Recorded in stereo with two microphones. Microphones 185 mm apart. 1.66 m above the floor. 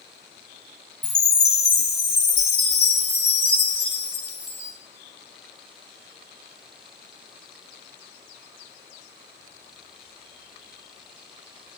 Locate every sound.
1.0 s a chime: 60° left (ahead or behind), 2.5 m